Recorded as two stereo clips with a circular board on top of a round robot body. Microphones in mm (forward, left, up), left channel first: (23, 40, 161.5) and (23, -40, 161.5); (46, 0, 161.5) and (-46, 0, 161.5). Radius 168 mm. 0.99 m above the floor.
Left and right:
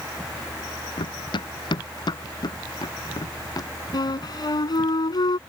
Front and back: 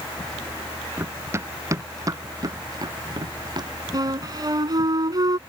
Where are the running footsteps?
115° left; by 3.7 s 135° left.